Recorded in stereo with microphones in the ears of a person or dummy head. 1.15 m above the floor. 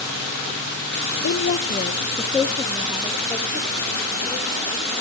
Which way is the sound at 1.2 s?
70° left (ahead or behind).